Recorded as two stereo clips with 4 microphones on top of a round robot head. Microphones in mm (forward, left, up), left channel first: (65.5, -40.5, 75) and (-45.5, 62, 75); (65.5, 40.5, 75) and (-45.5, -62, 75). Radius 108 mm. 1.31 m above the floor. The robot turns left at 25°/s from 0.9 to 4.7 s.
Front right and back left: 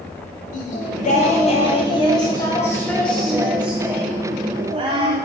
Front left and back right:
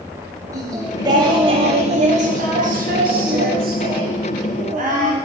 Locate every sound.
0.5 s singing: 70° right, 1.5 m; by 5.3 s 165° right, 1.5 m